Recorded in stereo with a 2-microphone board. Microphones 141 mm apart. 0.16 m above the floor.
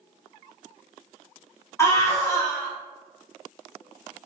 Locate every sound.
1.8 s a scream: 20° left (ahead or behind), 1.1 m